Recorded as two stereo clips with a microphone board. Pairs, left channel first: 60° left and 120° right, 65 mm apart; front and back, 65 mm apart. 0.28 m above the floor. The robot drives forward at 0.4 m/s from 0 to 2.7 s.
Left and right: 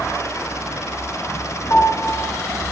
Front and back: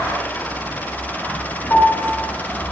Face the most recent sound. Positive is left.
turn(degrees=50)